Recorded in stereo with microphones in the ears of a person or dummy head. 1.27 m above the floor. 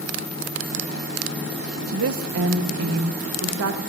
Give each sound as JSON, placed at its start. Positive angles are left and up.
{"t": 1.9, "sound": "a woman speaking", "side_deg": -70, "distance_m": 1.0}